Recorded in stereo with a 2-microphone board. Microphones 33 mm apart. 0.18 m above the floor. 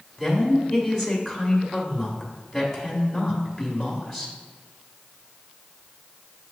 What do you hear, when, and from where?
0.2 s a woman speaking: 10° left (ahead or behind), 1.1 m